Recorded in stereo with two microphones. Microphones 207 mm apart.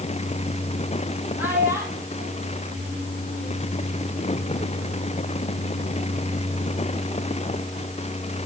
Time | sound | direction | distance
1.4 | a child speaking | 10° right (ahead or behind) | 5.5 m